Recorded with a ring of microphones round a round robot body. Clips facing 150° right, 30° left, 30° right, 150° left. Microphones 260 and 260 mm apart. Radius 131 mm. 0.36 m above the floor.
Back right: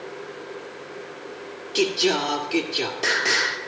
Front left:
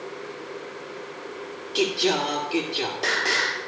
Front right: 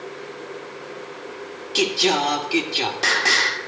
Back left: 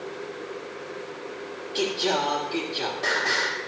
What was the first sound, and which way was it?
Singing, 70° right.